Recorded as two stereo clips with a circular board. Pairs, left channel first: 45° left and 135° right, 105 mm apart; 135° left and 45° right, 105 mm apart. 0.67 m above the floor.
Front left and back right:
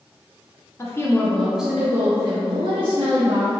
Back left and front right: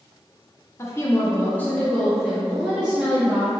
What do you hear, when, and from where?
0.8 s a woman speaking: 90° left, 0.7 m; by 3.5 s 120° right, 1.1 m